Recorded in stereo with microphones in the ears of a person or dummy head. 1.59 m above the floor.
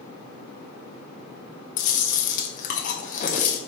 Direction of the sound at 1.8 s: 45° left (ahead or behind).